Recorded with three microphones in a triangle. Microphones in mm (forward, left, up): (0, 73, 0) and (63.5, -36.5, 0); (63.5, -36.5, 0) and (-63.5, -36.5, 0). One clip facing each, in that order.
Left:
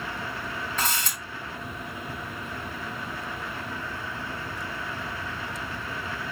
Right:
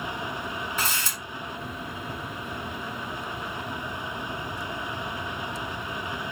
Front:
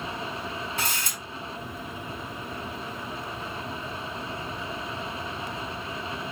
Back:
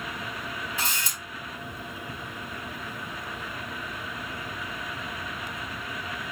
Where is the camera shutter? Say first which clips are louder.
Left 1 dB, front 1 dB; 20° left, 3 m.